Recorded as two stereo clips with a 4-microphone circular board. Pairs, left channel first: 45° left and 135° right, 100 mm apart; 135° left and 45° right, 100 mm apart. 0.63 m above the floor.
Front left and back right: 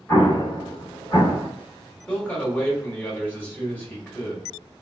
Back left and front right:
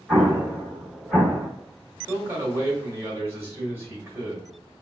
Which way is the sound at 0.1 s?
35° left.